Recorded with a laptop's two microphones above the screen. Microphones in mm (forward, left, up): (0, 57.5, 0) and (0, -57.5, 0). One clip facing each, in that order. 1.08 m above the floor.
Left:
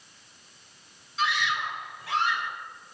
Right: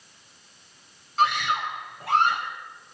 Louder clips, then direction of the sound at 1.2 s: Right 5 dB; 60° right (ahead or behind).